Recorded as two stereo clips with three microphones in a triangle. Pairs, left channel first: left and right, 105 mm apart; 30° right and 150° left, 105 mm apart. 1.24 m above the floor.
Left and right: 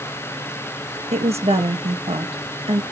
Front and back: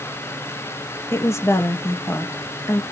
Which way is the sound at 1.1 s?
95° right.